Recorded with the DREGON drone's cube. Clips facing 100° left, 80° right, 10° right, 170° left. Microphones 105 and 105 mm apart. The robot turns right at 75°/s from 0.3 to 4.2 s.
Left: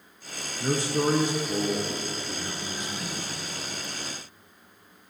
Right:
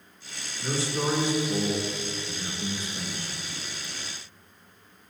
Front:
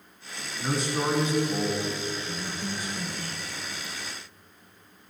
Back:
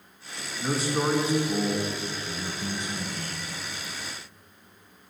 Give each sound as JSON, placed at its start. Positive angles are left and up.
{"t": 0.6, "sound": "a man speaking", "azimuth_deg": 70, "distance_m": 1.9}